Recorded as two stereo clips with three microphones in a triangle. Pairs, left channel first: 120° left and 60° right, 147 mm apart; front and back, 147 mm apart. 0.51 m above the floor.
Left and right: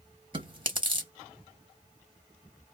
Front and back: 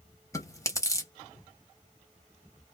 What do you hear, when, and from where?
0.3 s chewing: 50° right, 0.8 m